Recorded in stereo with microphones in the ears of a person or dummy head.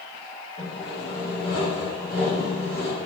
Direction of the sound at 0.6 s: 35° left (ahead or behind).